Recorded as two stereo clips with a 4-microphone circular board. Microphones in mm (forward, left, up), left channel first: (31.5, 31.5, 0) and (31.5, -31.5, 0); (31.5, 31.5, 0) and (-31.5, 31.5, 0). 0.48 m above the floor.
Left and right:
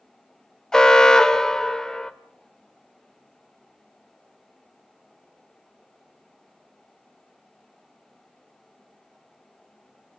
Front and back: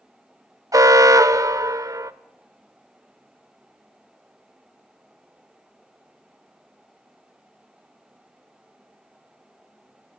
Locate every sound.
0.7 s an alarm: 170° left, 0.9 m